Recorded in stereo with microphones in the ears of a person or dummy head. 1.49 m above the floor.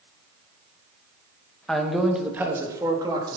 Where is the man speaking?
10° left (ahead or behind), 1.9 m; by 3.4 s 20° right (ahead or behind), 3.5 m.